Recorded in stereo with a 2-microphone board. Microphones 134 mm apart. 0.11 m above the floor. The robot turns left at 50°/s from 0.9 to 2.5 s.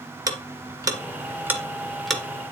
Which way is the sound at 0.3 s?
30° right (ahead or behind).